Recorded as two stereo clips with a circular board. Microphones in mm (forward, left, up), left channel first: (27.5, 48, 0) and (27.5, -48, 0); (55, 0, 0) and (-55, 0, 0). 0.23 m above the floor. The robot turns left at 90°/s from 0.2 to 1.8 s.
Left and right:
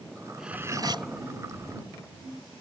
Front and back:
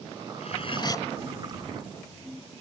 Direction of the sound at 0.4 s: Straight ahead.